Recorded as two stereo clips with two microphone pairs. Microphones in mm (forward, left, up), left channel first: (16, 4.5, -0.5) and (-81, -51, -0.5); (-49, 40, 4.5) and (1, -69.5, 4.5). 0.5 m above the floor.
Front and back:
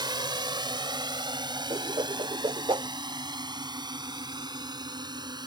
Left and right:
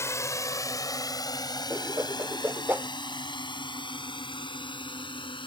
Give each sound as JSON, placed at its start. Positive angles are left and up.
{"t": 0.0, "sound": "a drone", "azimuth_deg": 175}
{"t": 1.7, "sound": "a whoosh", "azimuth_deg": -135}